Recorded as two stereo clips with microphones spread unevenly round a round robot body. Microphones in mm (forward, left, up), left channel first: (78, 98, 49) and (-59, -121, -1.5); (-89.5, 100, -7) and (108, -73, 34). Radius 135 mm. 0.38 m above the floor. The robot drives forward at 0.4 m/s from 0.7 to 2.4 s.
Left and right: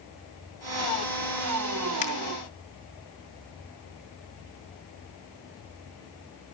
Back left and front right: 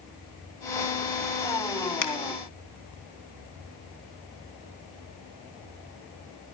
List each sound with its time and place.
2.0 s a finger snap: 125° left, 3 m